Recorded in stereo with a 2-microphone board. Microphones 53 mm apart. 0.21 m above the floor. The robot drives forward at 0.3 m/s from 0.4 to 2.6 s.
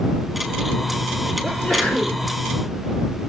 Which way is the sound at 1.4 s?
15° left (ahead or behind).